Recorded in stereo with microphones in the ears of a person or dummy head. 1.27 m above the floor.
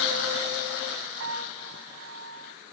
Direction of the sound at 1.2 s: 65° right (ahead or behind).